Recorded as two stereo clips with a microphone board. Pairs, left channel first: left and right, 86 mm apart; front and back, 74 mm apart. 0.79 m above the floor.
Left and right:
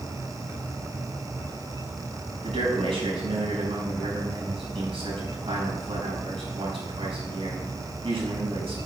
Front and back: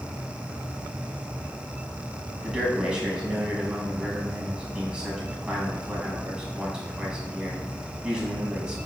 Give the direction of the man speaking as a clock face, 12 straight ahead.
3 o'clock.